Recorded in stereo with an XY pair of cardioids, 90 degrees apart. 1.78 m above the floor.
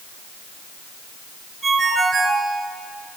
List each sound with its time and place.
1.6 s a ringtone: 35° right, 9 m